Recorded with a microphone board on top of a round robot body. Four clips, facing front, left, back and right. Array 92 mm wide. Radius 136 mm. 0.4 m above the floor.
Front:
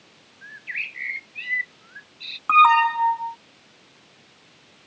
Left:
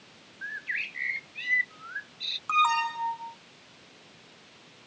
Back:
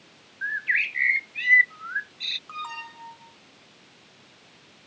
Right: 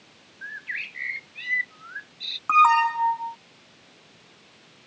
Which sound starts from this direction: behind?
A bird, at 0.4 s.